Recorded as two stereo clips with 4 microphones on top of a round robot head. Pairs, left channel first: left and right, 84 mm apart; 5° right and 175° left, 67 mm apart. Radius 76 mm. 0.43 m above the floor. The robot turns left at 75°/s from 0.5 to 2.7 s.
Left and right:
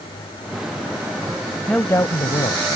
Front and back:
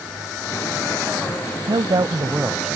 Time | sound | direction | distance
1.7 | a woman speaking | 170° left | ?